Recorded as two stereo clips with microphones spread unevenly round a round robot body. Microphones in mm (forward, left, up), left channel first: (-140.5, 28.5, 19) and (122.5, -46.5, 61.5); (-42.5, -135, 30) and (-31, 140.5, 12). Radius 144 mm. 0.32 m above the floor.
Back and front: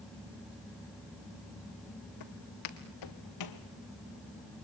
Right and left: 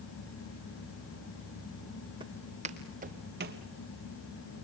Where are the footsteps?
160° left, 2.5 m; by 3.6 s 140° left, 2.5 m.